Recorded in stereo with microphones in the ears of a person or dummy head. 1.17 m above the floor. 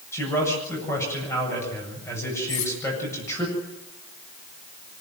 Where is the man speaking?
15° left (ahead or behind), 8 m.